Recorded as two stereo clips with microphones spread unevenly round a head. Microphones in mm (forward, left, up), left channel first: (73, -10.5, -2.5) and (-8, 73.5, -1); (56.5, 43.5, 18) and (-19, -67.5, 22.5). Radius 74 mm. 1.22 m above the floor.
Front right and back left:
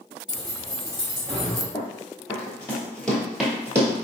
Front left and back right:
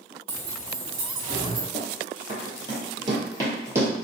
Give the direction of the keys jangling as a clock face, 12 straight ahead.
5 o'clock.